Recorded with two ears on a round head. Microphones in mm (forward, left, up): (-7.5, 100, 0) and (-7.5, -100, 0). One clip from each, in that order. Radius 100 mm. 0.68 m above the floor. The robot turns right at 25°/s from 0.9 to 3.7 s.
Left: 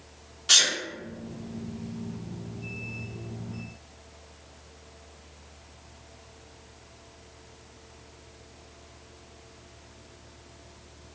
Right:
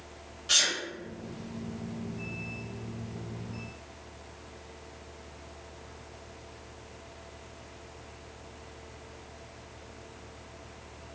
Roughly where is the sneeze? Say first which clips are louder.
Left 5 dB; left.